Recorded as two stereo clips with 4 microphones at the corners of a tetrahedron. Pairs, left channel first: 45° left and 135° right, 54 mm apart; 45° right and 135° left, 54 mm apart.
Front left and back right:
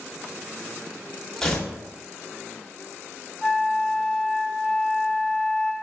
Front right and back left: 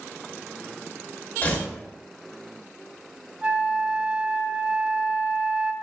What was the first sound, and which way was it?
Tearing paper, 30° right.